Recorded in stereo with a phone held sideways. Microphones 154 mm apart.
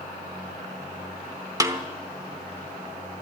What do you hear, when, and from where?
1.6 s a snare drum: 20° right (ahead or behind), 0.9 m